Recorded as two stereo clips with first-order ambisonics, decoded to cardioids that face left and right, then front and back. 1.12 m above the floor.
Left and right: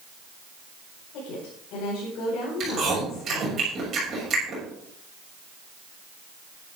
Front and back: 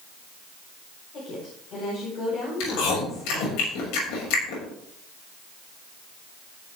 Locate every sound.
1.1 s a woman speaking: 55° left, 5.5 m
2.6 s chewing: 25° right, 7 m